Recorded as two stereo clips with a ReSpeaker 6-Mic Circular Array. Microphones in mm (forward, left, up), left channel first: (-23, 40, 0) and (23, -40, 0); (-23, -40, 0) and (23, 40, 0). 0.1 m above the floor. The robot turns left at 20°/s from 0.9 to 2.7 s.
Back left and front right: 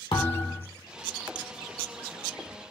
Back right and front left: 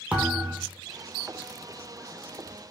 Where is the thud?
135° left, 1.4 m.